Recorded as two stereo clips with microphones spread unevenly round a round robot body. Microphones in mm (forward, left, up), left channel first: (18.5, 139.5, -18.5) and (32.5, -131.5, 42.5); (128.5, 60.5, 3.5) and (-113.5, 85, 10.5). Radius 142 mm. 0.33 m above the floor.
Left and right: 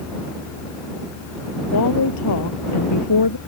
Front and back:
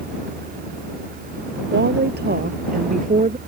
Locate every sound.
1.7 s a woman speaking: 130° left; by 3.4 s 115° left